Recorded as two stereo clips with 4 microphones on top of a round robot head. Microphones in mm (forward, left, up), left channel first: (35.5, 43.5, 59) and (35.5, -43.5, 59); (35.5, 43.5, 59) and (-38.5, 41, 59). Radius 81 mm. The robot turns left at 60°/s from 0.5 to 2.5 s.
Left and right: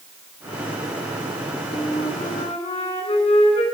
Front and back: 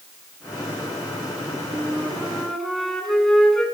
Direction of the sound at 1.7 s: 135° left.